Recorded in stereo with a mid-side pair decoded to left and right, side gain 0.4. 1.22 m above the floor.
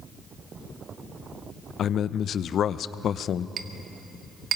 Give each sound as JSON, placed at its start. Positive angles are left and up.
{"t": 1.8, "sound": "a man speaking", "azimuth_deg": 65, "distance_m": 0.8}
{"t": 3.6, "sound": "a clink", "azimuth_deg": -65, "distance_m": 1.4}